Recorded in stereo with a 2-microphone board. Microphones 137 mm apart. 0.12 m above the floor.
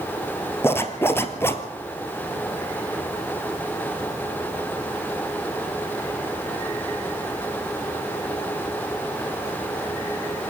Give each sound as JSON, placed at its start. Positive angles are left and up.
{"t": 0.6, "sound": "a zipper", "side_deg": 15, "distance_m": 1.5}